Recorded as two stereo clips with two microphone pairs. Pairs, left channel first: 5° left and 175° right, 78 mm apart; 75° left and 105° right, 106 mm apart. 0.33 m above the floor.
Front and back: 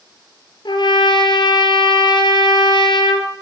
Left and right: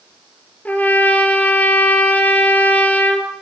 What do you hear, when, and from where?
0.7 s a trumpet: straight ahead, 2 m